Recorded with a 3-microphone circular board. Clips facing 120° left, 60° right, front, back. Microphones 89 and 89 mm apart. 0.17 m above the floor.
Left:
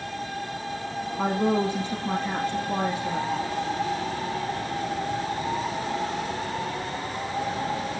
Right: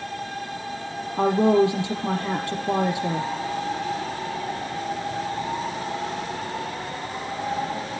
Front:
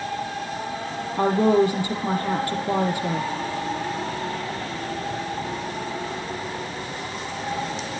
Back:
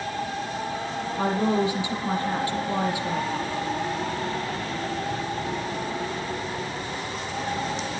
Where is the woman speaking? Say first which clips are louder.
Right 6 dB, front 6 dB; 40° right, 6.5 m.